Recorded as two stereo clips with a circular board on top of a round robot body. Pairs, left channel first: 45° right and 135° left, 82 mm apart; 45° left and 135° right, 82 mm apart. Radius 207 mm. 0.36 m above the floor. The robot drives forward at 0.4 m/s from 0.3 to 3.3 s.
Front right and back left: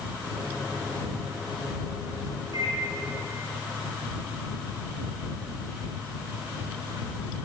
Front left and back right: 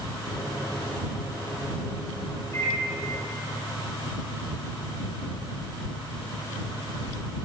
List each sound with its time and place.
2.5 s a microwave: 100° left, 6 m; by 2.8 s 105° left, 6 m